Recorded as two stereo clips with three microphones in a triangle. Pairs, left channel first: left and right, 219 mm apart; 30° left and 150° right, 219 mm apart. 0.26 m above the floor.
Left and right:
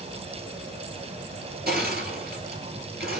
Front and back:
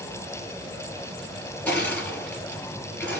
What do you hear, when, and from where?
1.7 s crushing: 50° right, 5 m